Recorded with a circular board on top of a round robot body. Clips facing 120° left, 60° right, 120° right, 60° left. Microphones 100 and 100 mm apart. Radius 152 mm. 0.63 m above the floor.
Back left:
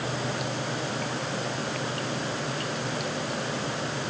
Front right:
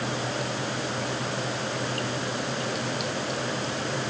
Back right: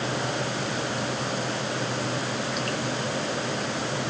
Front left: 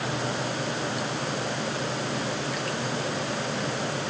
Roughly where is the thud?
No thud in this recording.